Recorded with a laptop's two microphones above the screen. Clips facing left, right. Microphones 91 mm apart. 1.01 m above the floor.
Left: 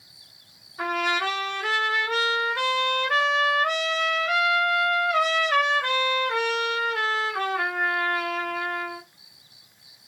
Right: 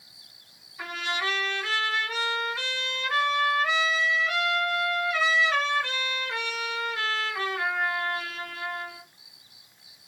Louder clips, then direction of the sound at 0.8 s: Left 6 dB; 55° left (ahead or behind).